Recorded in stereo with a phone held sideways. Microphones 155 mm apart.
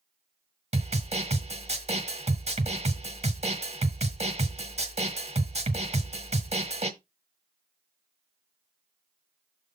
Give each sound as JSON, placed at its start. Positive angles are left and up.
{"t": 0.7, "sound": "a snare drum", "side_deg": -45, "distance_m": 1.6}